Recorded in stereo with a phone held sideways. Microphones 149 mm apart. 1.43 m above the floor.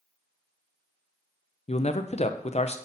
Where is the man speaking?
45° left (ahead or behind), 0.6 m.